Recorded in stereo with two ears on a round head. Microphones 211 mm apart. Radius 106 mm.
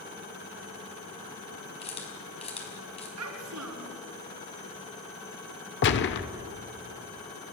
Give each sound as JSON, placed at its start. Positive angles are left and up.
{"t": 1.8, "sound": "a camera shutter", "side_deg": 30, "distance_m": 5.0}
{"t": 3.2, "sound": "a child speaking", "side_deg": -80, "distance_m": 5.0}
{"t": 5.8, "sound": "a gunshot", "side_deg": 50, "distance_m": 1.1}